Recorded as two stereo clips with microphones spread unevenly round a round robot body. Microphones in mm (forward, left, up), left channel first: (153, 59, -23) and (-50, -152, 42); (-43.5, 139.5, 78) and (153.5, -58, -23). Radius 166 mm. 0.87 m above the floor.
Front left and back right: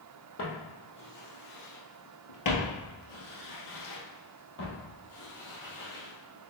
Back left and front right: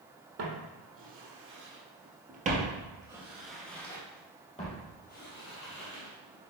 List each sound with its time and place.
0.4 s footsteps: straight ahead, 1.9 m; by 6.5 s 115° left, 2 m